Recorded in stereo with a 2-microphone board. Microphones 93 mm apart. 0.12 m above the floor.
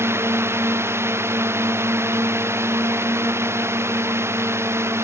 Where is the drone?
25° right (ahead or behind).